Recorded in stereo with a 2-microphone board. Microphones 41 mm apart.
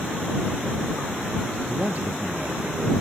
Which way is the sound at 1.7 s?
35° right (ahead or behind).